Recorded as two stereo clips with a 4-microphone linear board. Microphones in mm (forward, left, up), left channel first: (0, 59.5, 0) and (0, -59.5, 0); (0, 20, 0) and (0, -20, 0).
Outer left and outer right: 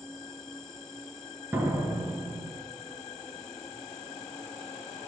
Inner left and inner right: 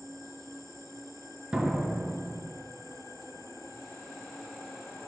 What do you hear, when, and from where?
0.0 s an insect: 5° left (ahead or behind), 0.8 m
1.5 s a door slam: 20° right (ahead or behind), 1.4 m